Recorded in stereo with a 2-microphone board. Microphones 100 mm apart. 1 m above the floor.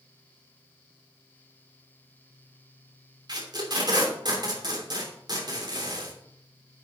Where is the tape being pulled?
50° right (ahead or behind), 3 m.